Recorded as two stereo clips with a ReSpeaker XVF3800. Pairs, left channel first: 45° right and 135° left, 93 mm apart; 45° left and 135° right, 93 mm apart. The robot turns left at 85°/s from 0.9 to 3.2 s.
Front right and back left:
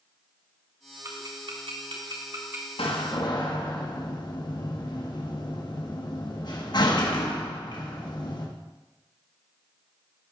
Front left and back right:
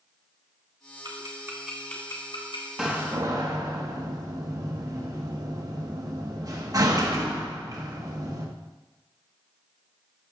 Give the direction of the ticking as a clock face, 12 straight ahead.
5 o'clock.